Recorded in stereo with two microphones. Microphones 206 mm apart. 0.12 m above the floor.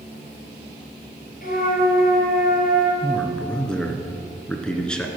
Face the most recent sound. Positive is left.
turn(degrees=5)  # may be behind; listen again after turning